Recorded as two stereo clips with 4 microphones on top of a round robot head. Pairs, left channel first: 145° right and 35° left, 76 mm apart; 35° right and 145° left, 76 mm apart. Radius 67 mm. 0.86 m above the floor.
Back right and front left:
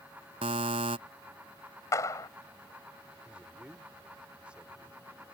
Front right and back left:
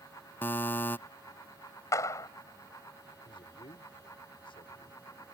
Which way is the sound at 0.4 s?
30° left.